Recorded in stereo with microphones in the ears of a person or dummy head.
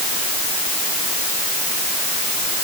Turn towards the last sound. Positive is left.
No sound to turn to.